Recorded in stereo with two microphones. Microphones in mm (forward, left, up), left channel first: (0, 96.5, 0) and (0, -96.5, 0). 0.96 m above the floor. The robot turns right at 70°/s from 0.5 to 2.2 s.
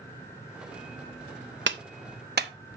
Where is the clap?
75° right (ahead or behind), 0.9 m; by 2.5 s 60° right (ahead or behind), 0.9 m.